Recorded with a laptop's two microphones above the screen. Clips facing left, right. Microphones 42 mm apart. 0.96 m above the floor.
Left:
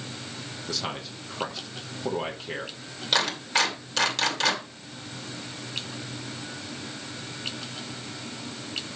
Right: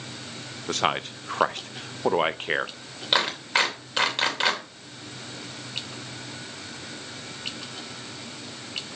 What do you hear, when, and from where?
0.7 s a man speaking: 50° right (ahead or behind), 0.6 m
3.1 s a clap: 20° right (ahead or behind), 2.5 m